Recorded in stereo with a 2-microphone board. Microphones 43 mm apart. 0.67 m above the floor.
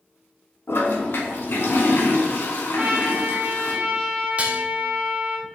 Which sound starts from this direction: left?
A toilet flushing, at 0.7 s.